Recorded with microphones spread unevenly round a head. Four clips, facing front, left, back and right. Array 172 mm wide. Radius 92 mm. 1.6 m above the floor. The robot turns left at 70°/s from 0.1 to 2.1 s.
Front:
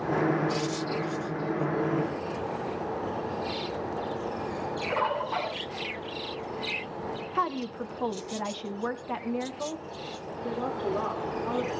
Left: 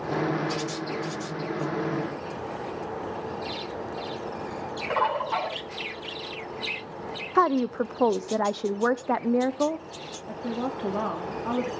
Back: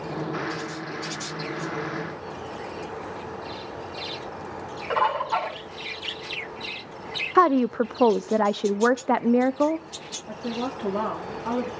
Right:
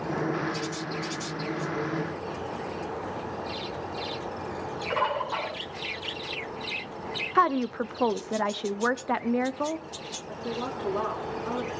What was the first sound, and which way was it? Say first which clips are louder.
A bird: left 3 dB, back 6 dB; 145° left.